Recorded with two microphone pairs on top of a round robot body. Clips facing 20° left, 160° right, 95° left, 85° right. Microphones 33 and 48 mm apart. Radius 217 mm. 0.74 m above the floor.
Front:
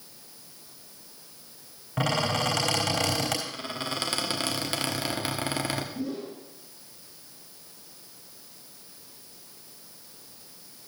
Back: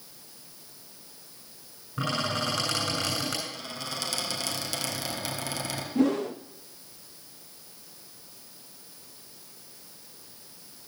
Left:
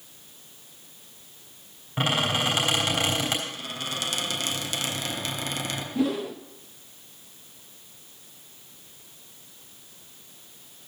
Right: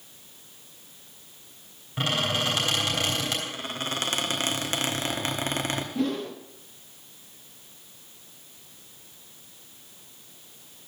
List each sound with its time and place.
2.0 s a squeak: 25° left, 3.5 m
3.5 s a squeak: 35° right, 1.4 m
6.0 s a whoosh: straight behind, 0.6 m